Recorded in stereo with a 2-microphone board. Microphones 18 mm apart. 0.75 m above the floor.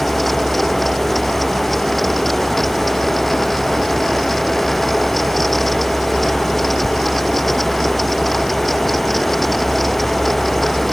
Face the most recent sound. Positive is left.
No sound to turn to.